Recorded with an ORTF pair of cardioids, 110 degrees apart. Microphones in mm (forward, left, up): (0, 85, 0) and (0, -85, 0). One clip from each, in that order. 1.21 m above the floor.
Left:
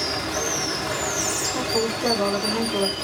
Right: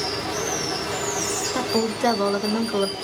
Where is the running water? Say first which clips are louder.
Left 1 dB; 35° left, 1.2 m.